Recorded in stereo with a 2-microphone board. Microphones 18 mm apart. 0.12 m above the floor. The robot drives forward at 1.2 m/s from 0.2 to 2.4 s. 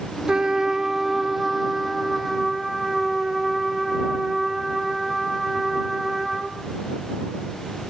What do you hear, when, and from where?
0.3 s a trumpet: 45° right (ahead or behind), 0.8 m; by 6.6 s 10° right (ahead or behind), 3 m